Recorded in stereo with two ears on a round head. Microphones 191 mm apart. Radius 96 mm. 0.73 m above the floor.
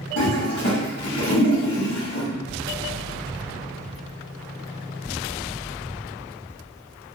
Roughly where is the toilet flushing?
Left.